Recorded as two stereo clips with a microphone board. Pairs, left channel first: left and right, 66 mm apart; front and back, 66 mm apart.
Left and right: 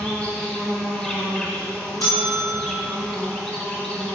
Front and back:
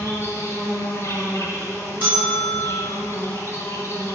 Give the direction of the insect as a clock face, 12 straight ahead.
11 o'clock.